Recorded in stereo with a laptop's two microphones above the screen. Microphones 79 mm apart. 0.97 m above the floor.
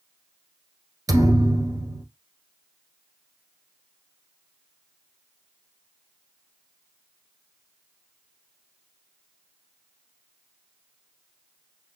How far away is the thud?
About 1.4 m.